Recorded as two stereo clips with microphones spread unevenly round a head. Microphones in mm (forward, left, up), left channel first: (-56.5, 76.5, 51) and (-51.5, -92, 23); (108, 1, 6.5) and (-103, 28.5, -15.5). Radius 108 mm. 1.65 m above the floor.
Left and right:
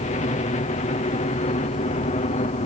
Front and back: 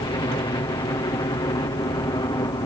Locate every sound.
0.0 s a helicopter: 55° left